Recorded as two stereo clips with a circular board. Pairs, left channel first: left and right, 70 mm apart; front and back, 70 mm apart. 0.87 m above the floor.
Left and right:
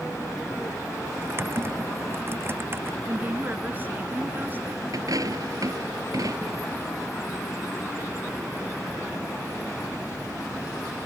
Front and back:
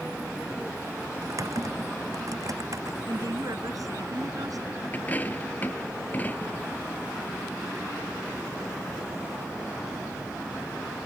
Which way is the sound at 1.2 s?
145° right.